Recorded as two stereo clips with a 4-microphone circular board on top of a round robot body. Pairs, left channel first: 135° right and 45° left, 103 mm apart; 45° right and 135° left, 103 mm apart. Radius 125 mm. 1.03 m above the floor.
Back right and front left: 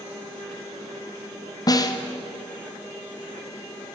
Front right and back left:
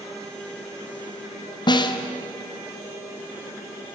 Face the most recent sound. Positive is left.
turn(degrees=-85)